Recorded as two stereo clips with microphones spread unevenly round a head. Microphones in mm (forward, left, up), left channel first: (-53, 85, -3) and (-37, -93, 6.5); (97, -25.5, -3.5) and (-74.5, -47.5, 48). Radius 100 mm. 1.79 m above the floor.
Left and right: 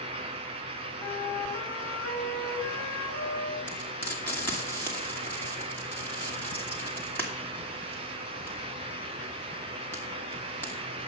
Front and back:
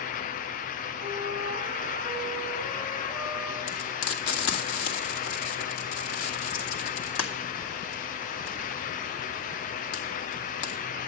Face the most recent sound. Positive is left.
turn(degrees=15)